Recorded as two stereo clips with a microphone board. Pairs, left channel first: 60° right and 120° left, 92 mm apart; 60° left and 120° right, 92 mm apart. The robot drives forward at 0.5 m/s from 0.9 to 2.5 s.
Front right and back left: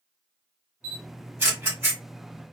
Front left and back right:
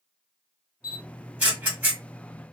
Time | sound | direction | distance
0.8 | a camera shutter | 175° left | 1.3 m